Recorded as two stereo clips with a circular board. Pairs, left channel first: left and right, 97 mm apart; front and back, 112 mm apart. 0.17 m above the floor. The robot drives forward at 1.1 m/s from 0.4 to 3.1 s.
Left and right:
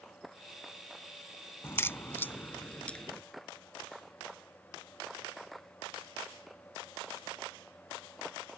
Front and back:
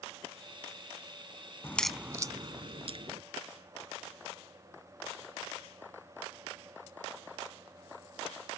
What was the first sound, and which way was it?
A crack, 45° left.